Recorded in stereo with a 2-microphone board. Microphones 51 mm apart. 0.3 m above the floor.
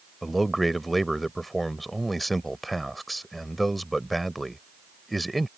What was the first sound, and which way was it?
A man speaking, centre (ahead or behind).